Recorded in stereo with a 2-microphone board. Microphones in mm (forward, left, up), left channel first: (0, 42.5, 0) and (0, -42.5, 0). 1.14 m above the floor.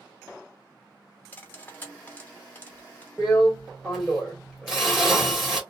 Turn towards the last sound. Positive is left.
turn(degrees=0)  # may be behind; listen again after turning